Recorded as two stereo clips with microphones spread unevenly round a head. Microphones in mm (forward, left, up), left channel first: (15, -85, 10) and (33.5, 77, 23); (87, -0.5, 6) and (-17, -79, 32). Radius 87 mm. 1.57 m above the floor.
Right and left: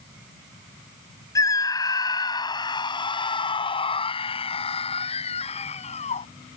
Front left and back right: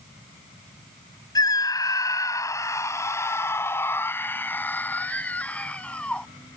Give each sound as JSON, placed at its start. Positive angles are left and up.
{"t": 1.4, "sound": "a scream", "azimuth_deg": -25}